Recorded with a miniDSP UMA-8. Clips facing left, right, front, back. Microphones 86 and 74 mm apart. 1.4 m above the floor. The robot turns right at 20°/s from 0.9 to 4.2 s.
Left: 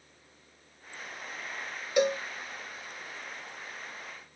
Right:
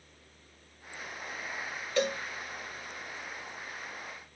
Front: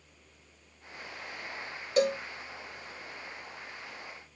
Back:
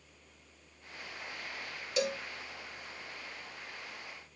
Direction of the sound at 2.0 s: 20° left.